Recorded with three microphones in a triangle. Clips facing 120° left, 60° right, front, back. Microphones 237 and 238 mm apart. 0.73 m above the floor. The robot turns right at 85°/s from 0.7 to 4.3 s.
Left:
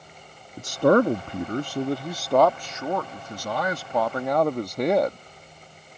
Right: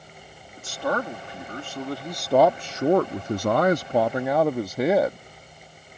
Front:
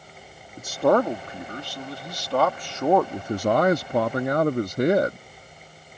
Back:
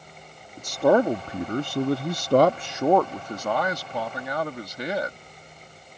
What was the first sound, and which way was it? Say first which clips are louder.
A man speaking: left 10 dB, back 1 dB; 80° left.